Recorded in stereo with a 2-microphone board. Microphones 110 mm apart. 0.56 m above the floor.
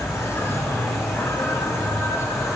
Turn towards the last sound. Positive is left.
turn(degrees=25)  # may be behind; listen again after turning